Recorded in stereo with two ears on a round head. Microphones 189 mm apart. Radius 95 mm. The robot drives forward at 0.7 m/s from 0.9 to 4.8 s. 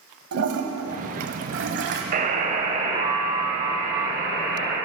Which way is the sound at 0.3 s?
75° right (ahead or behind).